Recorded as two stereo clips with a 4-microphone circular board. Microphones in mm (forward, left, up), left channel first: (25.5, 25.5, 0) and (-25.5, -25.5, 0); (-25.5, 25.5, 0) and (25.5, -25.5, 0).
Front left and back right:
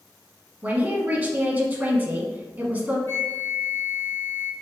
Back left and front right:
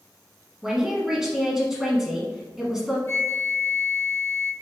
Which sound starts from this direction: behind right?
A man speaking, at 0.6 s.